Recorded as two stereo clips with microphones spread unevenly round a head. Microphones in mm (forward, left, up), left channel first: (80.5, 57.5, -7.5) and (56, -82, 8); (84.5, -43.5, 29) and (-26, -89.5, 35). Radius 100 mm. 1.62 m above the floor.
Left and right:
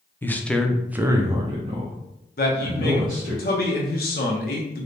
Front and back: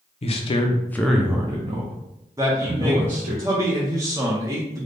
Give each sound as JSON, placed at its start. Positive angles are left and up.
{"t": 0.2, "sound": "a man speaking", "azimuth_deg": 0, "distance_m": 0.7}
{"t": 2.4, "sound": "a man speaking", "azimuth_deg": 130, "distance_m": 0.6}